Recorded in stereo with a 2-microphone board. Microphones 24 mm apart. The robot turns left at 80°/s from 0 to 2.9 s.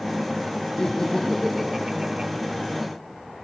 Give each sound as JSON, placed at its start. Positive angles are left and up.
{"t": 0.8, "sound": "laughter", "azimuth_deg": 60, "distance_m": 1.6}